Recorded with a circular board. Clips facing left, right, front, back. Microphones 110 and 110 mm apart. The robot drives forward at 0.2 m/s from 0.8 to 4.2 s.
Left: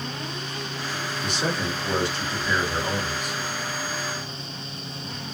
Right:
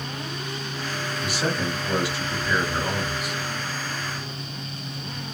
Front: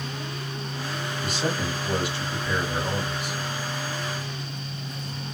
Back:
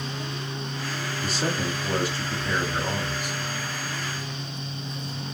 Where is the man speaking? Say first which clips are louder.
Right 1 dB, even; 165° right, 1.2 m; by 3.4 s 170° right, 1.5 m.